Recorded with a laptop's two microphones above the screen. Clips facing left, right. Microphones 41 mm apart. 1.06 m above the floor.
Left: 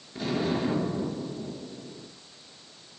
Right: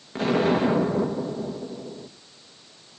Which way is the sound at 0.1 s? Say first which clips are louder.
Right 7 dB; 55° right (ahead or behind).